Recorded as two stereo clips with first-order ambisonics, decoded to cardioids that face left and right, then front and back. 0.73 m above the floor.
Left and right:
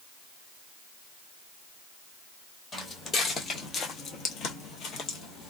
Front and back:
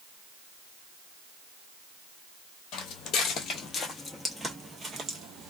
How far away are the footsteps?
About 1.2 m.